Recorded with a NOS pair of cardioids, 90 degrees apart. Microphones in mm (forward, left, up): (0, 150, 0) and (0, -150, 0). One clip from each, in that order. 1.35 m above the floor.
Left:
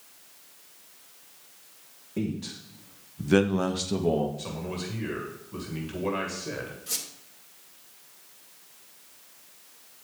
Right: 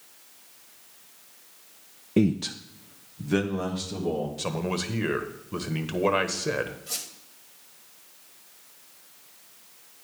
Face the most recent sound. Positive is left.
turn(degrees=30)